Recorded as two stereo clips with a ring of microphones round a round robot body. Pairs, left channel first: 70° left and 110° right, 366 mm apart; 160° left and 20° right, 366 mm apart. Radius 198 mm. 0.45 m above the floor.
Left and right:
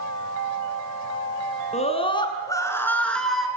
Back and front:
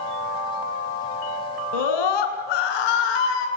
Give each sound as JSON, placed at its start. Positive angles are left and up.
{"t": 1.7, "sound": "a scream", "azimuth_deg": 140, "distance_m": 5.5}